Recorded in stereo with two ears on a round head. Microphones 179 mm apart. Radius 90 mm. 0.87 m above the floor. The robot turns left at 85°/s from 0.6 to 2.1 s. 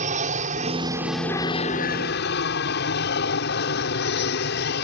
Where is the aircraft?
130° right; by 4.9 s 100° left.